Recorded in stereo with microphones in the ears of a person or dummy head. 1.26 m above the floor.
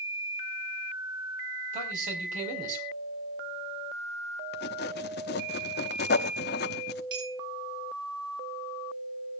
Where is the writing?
55° left (ahead or behind), 0.9 m.